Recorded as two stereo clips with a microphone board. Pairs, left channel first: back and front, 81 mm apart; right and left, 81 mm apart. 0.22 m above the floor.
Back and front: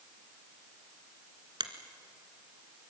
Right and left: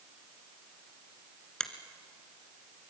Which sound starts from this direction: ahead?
A finger snap, at 1.6 s.